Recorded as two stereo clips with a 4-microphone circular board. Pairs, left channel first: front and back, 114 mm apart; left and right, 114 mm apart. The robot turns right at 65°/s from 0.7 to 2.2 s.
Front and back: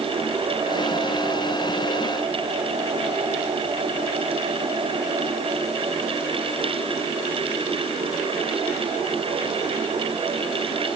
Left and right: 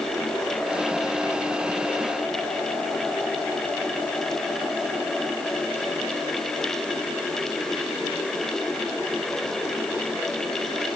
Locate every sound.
Only background noise.